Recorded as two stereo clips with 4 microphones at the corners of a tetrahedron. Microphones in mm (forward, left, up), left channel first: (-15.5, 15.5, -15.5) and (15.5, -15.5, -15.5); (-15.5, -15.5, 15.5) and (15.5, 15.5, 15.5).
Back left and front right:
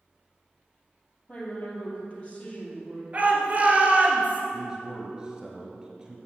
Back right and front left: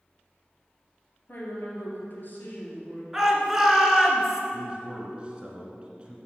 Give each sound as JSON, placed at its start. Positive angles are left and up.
{"t": 1.3, "sound": "a woman speaking", "azimuth_deg": -170, "distance_m": 2.5}
{"t": 3.1, "sound": "a shout", "azimuth_deg": -30, "distance_m": 1.7}
{"t": 4.5, "sound": "a man speaking", "azimuth_deg": 10, "distance_m": 1.5}